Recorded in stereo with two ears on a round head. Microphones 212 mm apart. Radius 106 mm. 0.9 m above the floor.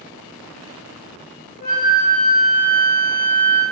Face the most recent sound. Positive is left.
turn(degrees=35)  # may be behind; listen again after turning